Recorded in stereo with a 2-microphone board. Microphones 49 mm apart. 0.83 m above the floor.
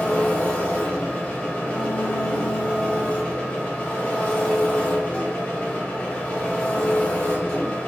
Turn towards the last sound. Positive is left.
turn(degrees=30)  # may be behind; listen again after turning